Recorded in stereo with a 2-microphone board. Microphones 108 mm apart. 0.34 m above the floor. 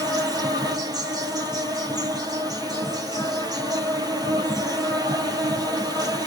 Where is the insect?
40° right (ahead or behind), 0.9 m.